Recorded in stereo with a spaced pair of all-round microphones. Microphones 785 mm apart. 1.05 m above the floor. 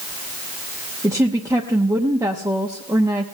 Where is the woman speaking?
5° right (ahead or behind), 0.8 m.